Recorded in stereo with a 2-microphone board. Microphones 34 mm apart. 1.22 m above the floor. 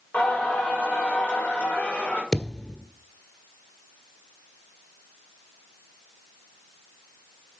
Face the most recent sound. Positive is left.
turn(degrees=25)  # may be behind; listen again after turning